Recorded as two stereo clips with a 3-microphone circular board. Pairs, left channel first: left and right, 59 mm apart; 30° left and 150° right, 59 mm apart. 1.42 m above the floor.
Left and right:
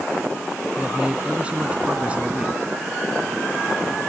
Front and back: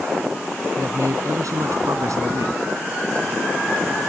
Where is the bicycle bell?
I don't hear a bicycle bell.